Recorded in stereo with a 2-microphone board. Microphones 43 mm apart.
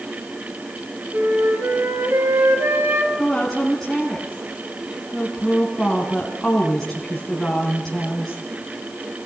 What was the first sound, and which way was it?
A flute, 70° right (ahead or behind).